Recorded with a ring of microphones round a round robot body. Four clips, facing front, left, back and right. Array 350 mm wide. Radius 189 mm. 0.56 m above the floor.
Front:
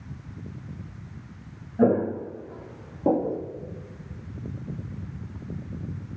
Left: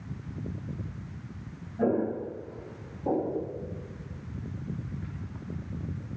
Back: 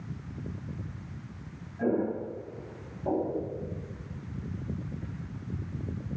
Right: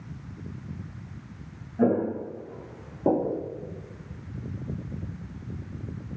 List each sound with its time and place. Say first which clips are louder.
1.8 s footsteps: right 3 dB, front 7 dB; 25° right, 2.5 m; by 3.4 s 55° right, 2.5 m